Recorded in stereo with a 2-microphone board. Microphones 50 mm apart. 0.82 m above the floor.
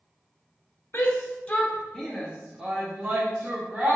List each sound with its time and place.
0.9 s a shout: 40° left (ahead or behind), 0.7 m; by 4.0 s 20° right (ahead or behind), 1.5 m